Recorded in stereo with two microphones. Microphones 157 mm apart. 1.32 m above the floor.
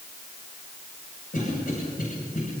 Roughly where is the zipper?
No zipper in this recording.